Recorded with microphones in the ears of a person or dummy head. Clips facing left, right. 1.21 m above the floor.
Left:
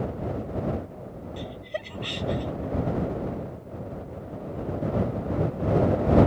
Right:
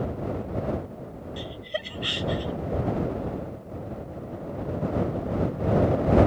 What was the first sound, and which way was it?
Laughter, 10° right (ahead or behind).